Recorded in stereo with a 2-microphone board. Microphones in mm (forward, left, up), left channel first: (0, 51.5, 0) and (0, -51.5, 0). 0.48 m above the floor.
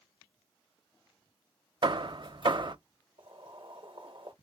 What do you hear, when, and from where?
1.8 s hammering: 50° right (ahead or behind), 0.5 m
3.2 s boiling: 55° right (ahead or behind), 1.0 m